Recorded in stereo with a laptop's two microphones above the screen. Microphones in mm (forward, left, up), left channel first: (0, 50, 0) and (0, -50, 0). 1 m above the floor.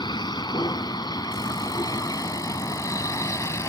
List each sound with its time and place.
0.0 s a vehicle: 50° left (ahead or behind); by 3.7 s 30° left (ahead or behind)